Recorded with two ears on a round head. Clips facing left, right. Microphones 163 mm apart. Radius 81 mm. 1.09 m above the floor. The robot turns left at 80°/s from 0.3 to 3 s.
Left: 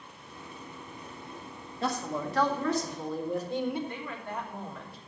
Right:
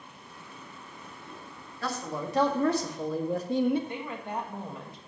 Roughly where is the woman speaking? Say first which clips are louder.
Right 3 dB; centre.